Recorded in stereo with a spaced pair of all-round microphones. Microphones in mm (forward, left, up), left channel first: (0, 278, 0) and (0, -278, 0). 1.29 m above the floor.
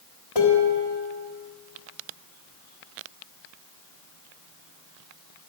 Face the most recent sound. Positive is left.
turn(degrees=75)  # may be behind; listen again after turning